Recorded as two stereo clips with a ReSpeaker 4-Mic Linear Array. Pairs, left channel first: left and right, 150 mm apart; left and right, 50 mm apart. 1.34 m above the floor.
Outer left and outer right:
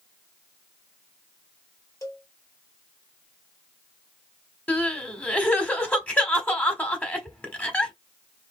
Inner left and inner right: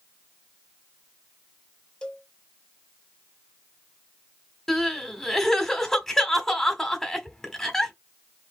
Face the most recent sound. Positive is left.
turn(degrees=10)  # may be behind; listen again after turning